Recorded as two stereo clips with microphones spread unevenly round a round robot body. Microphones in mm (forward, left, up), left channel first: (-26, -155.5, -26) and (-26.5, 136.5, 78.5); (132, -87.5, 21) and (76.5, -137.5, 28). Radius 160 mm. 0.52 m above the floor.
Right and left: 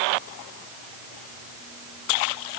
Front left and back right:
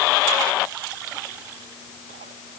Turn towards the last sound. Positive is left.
No sound to turn to.